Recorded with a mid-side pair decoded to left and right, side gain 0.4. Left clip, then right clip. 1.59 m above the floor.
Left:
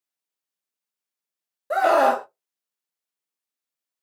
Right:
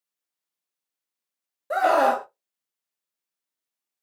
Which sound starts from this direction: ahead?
A scream, at 1.7 s.